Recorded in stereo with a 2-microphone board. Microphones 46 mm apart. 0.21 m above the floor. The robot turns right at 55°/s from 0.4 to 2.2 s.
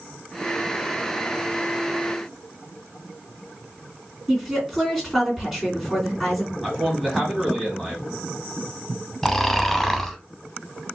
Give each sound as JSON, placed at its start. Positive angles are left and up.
{"t": 4.3, "sound": "a woman speaking", "side_deg": -5, "distance_m": 2.0}
{"t": 6.6, "sound": "a man speaking", "side_deg": 5, "distance_m": 1.2}
{"t": 9.2, "sound": "snoring", "side_deg": 10, "distance_m": 0.6}